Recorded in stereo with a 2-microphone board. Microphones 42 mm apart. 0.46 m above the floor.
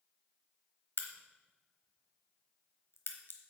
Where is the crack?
65° left (ahead or behind), 1.0 m.